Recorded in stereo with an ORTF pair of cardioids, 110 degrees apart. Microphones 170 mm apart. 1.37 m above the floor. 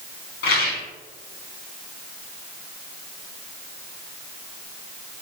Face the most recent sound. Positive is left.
turn(degrees=70)